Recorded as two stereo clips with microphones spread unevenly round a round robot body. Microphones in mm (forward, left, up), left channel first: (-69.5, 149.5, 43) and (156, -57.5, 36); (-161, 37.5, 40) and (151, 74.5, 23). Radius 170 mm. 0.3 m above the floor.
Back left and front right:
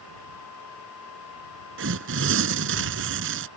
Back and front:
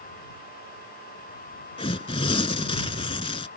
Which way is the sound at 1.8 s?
100° right.